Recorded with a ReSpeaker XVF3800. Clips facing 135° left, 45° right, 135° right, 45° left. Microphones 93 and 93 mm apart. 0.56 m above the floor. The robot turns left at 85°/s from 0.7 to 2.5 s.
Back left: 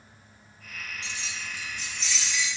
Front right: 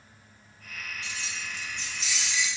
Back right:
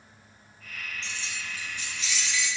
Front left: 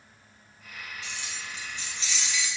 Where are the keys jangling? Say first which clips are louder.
Even, back right 1 dB; 120° left, 0.7 m; by 2.5 s 5° right, 0.7 m.